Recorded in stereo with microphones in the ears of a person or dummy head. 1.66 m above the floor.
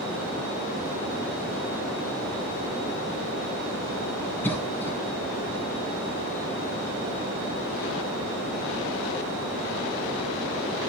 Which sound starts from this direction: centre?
A cough, at 4.4 s.